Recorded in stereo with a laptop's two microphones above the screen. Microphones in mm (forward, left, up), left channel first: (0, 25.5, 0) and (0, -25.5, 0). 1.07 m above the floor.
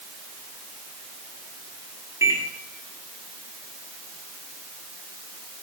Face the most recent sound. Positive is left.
turn(degrees=-75)  # may be behind; listen again after turning